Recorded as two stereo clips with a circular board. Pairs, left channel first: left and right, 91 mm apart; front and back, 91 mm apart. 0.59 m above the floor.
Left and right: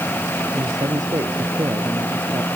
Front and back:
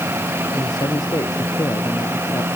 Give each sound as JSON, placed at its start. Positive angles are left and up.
{"t": 0.5, "sound": "a man speaking", "azimuth_deg": -40}